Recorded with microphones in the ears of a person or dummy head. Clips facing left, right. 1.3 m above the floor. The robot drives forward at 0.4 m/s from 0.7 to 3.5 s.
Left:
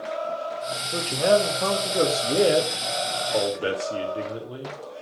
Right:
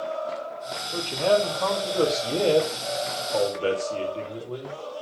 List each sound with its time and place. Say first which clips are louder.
0.9 s a man speaking: left 2 dB; 15° left (ahead or behind), 2.5 m; by 4.8 s 10° left (ahead or behind), 3.5 m